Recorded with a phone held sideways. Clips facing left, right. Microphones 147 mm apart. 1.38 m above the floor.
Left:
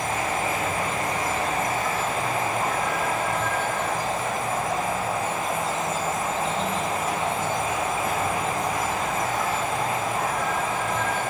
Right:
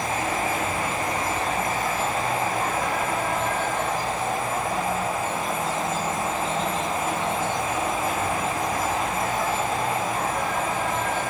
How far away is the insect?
About 5.5 m.